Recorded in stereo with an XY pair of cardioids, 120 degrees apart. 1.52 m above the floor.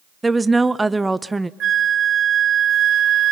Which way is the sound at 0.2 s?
15° right.